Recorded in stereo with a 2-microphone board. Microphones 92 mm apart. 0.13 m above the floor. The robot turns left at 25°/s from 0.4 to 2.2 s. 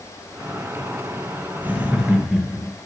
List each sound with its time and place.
1.6 s laughter: 15° right (ahead or behind), 1.9 m; by 2.7 s 5° right (ahead or behind), 1.9 m